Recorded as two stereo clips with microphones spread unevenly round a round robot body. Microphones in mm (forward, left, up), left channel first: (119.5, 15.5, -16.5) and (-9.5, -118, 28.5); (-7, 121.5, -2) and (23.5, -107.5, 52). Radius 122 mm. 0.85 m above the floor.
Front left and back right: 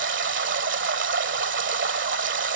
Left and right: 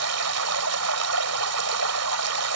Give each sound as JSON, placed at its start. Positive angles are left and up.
{"t": 0.0, "sound": "running water", "azimuth_deg": -110}